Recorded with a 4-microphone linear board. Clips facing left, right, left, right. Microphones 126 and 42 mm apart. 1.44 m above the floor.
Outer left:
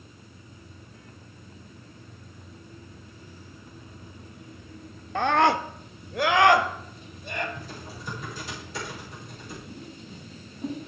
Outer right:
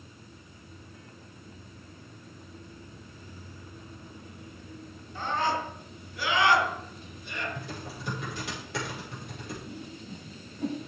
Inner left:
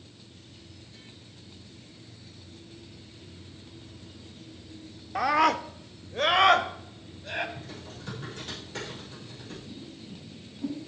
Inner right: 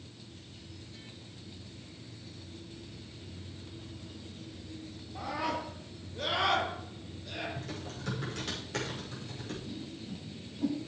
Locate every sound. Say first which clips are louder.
5.2 s a scream: outer left 8 dB, inner left 12 dB; 75° left (ahead or behind), 0.5 m; by 7.5 s 50° left (ahead or behind), 1.9 m
7.5 s typing on a keyboard: outer right 1 dB, inner right 2 dB; 70° right (ahead or behind), 5.5 m
9.7 s a whoosh: outer right 1 dB, inner right 1 dB; 75° right (ahead or behind), 6.5 m